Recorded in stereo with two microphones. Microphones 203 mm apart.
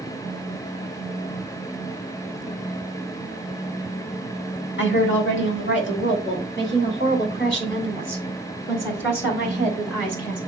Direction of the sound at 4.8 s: 70° left (ahead or behind).